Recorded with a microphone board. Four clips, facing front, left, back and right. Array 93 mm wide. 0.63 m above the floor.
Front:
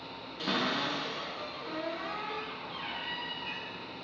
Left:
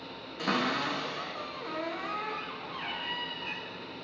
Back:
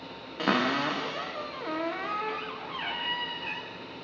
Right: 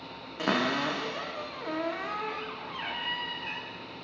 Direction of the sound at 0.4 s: 150° right.